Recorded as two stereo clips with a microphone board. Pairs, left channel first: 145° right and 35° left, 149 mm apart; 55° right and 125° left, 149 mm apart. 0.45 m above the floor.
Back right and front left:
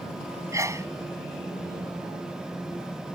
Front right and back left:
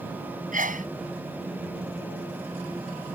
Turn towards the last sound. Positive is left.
turn(degrees=105)